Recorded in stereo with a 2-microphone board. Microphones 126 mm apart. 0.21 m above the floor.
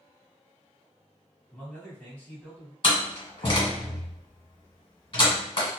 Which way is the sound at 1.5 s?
15° left (ahead or behind).